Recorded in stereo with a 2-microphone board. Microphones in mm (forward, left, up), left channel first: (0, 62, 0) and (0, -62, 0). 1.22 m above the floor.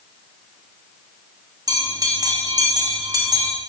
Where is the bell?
30° right (ahead or behind), 1.9 m.